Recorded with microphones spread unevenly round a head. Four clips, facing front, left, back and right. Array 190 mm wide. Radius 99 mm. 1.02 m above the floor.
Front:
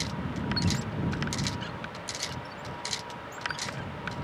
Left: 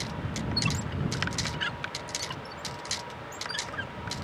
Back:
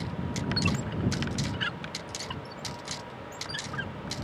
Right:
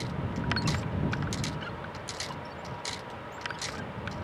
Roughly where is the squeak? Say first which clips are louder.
Right 1 dB, back 1 dB; behind left.